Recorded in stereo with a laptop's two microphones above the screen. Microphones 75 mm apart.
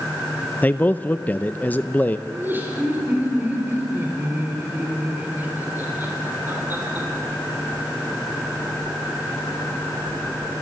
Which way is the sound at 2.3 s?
25° right (ahead or behind).